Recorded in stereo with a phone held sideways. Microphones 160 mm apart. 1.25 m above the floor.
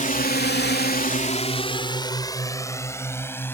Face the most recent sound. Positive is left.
turn(degrees=10)  # may be behind; listen again after turning